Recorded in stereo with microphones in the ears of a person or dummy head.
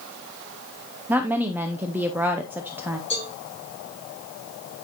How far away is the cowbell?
About 6 m.